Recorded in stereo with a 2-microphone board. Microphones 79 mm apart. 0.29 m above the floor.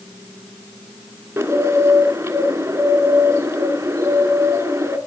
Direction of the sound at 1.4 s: 30° right (ahead or behind).